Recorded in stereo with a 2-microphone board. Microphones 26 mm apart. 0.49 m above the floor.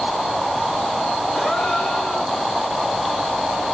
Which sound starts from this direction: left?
A gasp, at 1.3 s.